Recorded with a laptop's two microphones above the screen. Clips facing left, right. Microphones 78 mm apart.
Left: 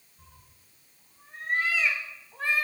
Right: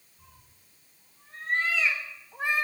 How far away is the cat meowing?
About 1.9 m.